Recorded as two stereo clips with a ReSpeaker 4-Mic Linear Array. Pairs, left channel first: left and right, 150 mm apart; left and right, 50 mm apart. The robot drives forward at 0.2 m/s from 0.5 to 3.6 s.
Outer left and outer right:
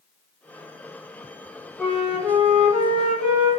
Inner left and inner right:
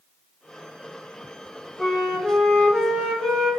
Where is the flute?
5° right (ahead or behind), 0.8 m; by 3.5 s centre (ahead or behind), 1.2 m.